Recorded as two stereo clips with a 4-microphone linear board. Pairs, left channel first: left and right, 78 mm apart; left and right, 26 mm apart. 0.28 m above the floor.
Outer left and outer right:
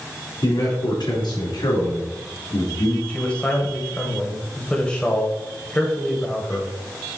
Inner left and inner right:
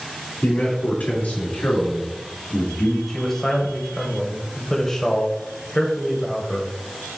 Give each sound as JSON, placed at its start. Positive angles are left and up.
{"t": 0.4, "sound": "a man speaking", "side_deg": 65, "distance_m": 3.5}
{"t": 3.1, "sound": "a man speaking", "side_deg": 15, "distance_m": 1.2}